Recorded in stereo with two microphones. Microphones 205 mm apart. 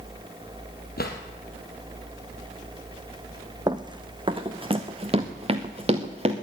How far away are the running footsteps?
About 1.0 m.